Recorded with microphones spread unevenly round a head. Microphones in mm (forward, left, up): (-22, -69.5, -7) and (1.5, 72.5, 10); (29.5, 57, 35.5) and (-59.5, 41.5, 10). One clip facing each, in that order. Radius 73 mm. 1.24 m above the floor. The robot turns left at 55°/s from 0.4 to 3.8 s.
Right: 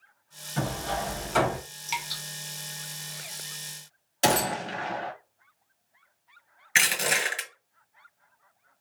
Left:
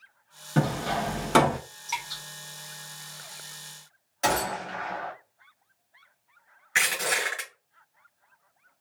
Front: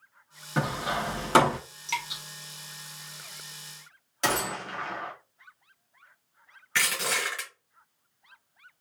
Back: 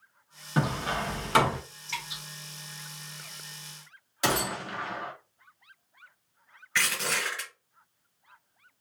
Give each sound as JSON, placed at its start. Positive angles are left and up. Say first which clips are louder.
{"t": 0.6, "sound": "hammering", "louder": "left 4 dB, even", "azimuth_deg": 105, "distance_m": 0.8}
{"t": 1.9, "sound": "dripping", "louder": "even, front 6 dB", "azimuth_deg": -30, "distance_m": 1.0}
{"t": 4.2, "sound": "a gunshot", "louder": "right 2 dB, even", "azimuth_deg": -105, "distance_m": 0.6}
{"t": 6.8, "sound": "crushing", "louder": "right 1 dB, front 1 dB", "azimuth_deg": -35, "distance_m": 1.6}